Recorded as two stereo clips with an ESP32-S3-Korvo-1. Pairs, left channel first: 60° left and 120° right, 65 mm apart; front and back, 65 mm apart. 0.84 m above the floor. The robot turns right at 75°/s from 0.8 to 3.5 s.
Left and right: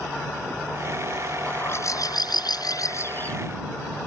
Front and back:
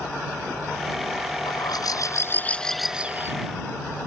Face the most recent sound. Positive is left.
turn(degrees=145)